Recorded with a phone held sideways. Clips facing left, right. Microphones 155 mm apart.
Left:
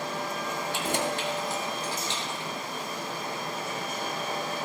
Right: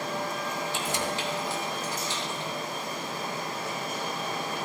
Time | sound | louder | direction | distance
0.7 | keys jangling | left 4 dB | 65° left (ahead or behind) | 2.5 m